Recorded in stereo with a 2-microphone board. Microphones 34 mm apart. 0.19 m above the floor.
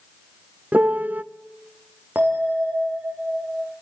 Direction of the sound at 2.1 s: 60° right (ahead or behind).